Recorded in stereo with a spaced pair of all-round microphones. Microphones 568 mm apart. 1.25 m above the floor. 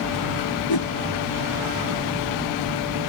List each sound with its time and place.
0.7 s a whoosh: 40° left (ahead or behind), 0.7 m